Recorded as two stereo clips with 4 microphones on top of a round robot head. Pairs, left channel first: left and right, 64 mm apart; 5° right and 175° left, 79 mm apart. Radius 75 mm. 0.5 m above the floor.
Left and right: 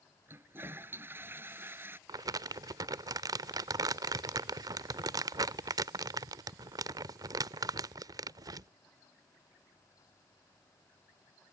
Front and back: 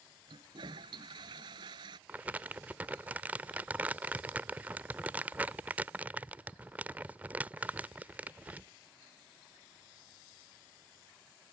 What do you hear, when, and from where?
0.3 s a toilet flushing: 145° right
2.1 s crumpling: 110° right